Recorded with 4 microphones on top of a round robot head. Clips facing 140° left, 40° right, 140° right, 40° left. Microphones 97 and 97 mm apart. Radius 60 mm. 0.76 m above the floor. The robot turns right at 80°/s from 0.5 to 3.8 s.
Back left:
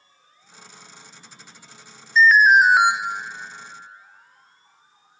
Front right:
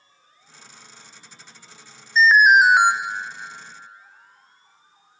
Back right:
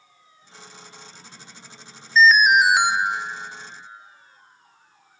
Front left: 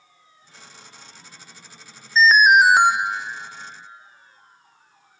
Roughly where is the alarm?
Ahead.